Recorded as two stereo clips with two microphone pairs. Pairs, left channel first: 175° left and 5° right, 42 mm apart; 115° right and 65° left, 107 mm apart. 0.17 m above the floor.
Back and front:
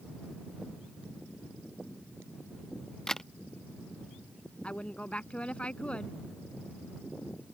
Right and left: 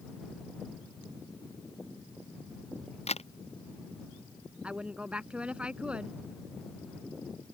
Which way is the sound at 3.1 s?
105° right.